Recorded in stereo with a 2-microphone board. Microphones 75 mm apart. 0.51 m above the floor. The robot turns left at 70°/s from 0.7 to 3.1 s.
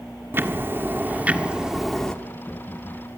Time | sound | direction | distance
0.3 | ticking | 30° right (ahead or behind) | 1.4 m